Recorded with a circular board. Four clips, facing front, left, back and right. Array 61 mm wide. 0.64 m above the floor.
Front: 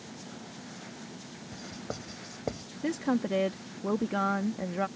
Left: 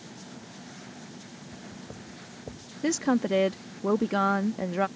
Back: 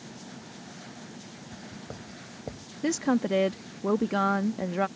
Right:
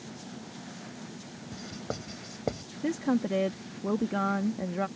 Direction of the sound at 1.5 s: 70° right.